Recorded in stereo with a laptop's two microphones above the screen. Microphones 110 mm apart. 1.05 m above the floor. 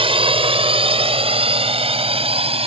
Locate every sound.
0.0 s a drone: 55° right (ahead or behind); by 2.7 s 60° right (ahead or behind)